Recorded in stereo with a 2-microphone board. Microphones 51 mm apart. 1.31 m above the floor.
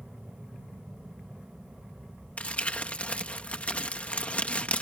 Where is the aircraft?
5° right (ahead or behind).